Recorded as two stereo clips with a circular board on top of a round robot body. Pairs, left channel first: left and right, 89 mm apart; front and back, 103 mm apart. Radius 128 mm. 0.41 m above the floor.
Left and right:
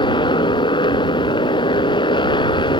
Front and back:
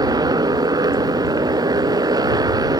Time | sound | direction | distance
0.0 | a motorcycle | 125° left | ?